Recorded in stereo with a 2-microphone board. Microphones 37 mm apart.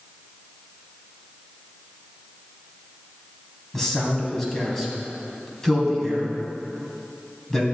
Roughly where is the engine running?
I don't hear an engine running.